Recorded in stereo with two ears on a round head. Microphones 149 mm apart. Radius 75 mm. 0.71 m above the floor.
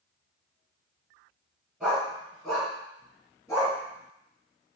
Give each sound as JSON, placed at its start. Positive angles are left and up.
{"t": 1.8, "sound": "a dog barking", "side_deg": -5, "distance_m": 2.5}